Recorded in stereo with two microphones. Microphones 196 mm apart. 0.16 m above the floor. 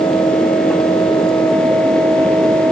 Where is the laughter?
No laughter in this recording.